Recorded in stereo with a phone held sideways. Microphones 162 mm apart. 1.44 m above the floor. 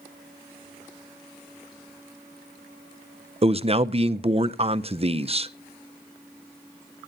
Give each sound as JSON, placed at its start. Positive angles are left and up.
{"t": 3.4, "sound": "a man speaking", "side_deg": -35, "distance_m": 0.6}